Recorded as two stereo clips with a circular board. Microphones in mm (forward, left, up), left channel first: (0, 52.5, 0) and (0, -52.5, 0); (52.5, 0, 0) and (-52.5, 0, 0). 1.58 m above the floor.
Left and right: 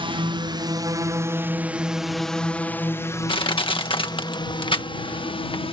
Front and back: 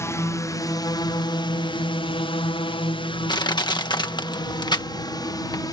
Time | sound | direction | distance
0.0 | a drone | 60° right | ?
3.3 | crushing | 50° left | ?